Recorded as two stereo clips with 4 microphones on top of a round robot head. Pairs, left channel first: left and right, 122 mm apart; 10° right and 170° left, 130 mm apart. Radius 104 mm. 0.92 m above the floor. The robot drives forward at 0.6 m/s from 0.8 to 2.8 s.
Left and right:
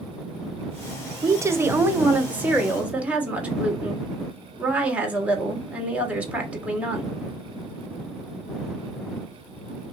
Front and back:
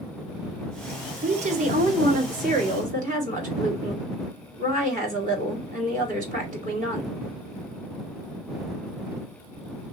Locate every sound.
1.2 s a woman speaking: 155° right, 0.6 m; by 7.1 s 170° right, 1.5 m